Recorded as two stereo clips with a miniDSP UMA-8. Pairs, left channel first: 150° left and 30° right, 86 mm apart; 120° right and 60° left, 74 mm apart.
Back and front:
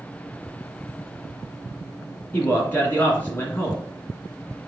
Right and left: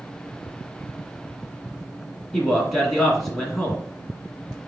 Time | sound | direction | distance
2.3 | a man speaking | 155° left | 1.8 m